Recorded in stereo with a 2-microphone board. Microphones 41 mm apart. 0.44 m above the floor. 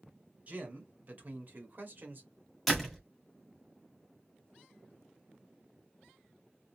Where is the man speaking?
40° right (ahead or behind), 2.5 m; by 2.3 s 50° right (ahead or behind), 1.8 m.